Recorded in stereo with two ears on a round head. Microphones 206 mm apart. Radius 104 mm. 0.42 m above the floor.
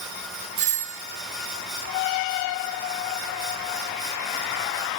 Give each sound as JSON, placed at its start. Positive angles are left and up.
{"t": 0.6, "sound": "a doorbell", "side_deg": -35}